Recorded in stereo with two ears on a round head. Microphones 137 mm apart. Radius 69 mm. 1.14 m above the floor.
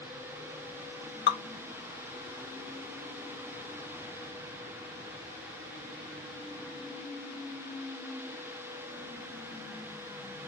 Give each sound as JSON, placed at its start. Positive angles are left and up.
{"t": 1.3, "sound": "dripping", "side_deg": 70, "distance_m": 1.2}